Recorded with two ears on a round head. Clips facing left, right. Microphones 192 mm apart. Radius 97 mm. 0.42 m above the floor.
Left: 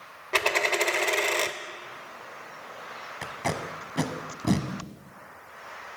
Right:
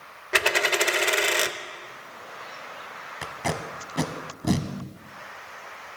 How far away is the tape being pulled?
About 0.9 m.